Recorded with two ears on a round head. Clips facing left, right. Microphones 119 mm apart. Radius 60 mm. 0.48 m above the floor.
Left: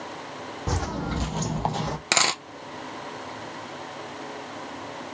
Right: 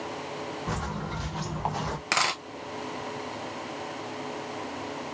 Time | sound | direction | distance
0.7 | footsteps | 45° left (ahead or behind) | 1.2 m
2.1 | a dropped coin | 30° left (ahead or behind) | 0.5 m